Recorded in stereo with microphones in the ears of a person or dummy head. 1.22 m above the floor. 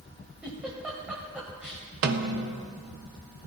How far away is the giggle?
About 1.0 m.